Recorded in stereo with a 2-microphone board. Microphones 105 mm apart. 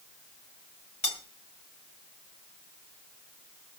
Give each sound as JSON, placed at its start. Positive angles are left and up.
{"t": 1.0, "sound": "cutlery clinking", "side_deg": 75, "distance_m": 2.0}